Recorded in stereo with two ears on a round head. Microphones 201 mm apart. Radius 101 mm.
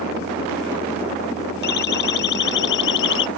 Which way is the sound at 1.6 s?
50° left (ahead or behind).